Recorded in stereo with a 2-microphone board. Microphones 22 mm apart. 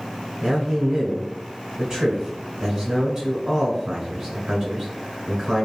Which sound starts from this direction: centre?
A man speaking, at 0.4 s.